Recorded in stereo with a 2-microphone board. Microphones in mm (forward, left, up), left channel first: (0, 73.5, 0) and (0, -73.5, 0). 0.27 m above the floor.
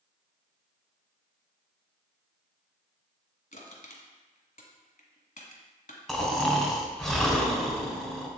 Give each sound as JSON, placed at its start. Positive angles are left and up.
{"t": 3.5, "sound": "crushing", "side_deg": 65, "distance_m": 1.4}
{"t": 6.1, "sound": "snoring", "side_deg": 0, "distance_m": 1.3}